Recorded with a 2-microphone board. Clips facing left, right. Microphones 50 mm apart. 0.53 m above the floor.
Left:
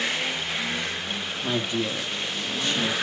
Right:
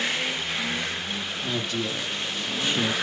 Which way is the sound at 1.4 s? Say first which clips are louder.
Left 3 dB; 25° left (ahead or behind).